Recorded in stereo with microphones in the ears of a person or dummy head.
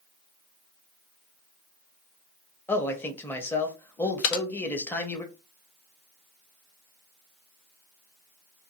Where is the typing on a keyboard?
65° left (ahead or behind), 0.6 m.